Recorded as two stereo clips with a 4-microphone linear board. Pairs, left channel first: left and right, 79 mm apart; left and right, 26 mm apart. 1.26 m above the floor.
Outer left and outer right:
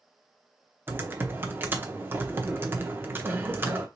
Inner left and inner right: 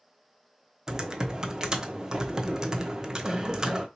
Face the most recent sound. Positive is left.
turn(degrees=-25)  # may be behind; listen again after turning